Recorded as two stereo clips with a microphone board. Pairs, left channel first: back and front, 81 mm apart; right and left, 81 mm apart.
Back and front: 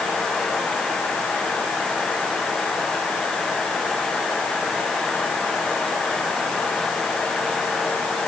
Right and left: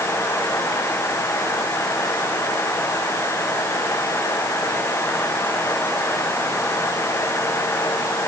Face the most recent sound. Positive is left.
No sound to turn to.